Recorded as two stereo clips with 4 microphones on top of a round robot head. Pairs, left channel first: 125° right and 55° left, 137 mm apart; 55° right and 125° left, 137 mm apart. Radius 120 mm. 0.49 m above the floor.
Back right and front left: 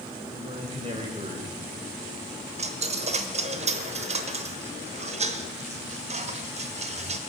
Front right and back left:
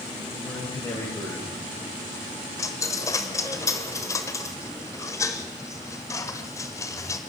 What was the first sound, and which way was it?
A man speaking, 10° left.